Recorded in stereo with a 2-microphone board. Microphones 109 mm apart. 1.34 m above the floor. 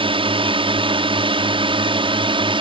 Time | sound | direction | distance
0.0 | a drone | 55° right (ahead or behind) | ?